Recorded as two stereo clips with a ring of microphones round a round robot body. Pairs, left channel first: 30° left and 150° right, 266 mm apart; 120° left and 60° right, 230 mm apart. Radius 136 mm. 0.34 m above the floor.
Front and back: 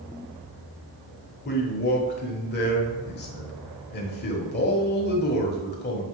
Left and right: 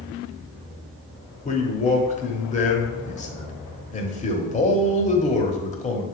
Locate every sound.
1.4 s a man speaking: 70° left, 1.2 m